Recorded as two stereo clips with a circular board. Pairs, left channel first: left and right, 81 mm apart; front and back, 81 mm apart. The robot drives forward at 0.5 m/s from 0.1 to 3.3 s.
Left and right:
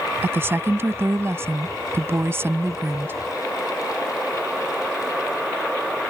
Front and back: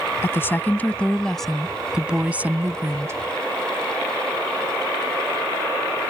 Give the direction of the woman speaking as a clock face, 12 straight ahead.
1 o'clock.